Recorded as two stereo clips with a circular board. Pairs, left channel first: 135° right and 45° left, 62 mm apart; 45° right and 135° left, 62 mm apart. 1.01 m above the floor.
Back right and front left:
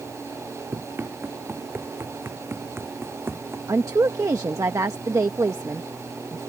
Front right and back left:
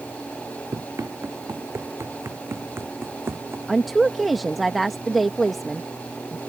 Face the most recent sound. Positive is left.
turn(degrees=45)